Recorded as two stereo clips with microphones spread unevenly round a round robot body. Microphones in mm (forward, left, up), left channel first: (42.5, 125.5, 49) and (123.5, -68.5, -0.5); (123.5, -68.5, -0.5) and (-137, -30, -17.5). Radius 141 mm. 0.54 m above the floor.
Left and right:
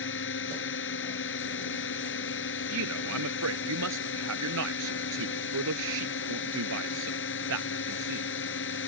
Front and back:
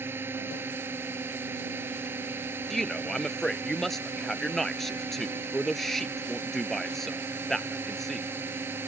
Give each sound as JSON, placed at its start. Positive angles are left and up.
{"t": 0.0, "sound": "a drone", "azimuth_deg": 90}
{"t": 2.7, "sound": "a man speaking", "azimuth_deg": -95}